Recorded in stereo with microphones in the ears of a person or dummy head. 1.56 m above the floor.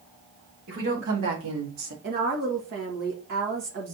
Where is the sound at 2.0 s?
50° right (ahead or behind), 1.5 m.